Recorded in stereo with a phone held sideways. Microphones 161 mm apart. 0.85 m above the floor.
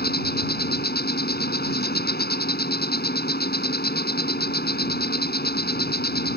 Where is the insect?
80° left.